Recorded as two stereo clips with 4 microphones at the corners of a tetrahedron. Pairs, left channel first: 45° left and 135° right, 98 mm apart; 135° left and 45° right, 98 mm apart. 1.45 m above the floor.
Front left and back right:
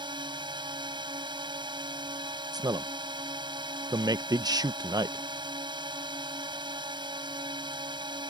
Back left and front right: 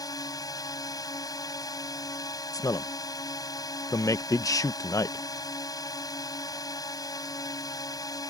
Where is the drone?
175° right.